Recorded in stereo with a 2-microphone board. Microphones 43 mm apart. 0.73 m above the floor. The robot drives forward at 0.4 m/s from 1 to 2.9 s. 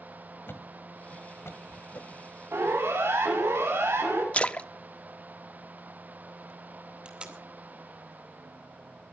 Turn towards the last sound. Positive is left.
turn(degrees=-25)  # may be behind; listen again after turning